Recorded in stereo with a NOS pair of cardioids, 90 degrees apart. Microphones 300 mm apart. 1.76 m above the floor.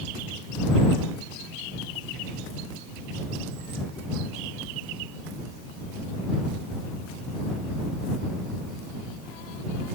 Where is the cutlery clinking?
I don't hear cutlery clinking.